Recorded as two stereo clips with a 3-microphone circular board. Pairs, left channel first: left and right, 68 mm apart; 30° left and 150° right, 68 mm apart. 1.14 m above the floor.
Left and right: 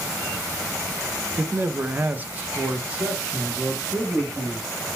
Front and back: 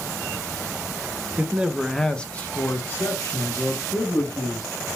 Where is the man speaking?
120° right, 0.5 m; by 4.9 s 10° right, 1.8 m.